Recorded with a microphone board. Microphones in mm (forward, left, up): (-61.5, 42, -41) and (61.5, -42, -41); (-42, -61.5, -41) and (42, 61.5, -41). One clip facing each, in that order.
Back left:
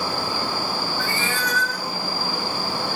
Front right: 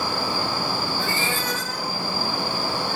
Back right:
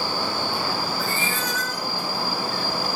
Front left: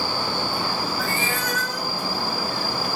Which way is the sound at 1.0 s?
30° left.